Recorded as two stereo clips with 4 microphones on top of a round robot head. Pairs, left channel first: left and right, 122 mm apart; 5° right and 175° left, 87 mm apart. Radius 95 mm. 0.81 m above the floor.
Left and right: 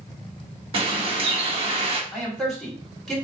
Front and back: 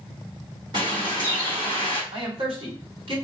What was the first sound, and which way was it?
A bird, 135° right.